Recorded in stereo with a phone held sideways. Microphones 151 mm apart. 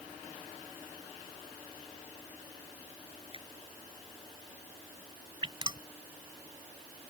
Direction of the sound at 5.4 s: 30° right (ahead or behind).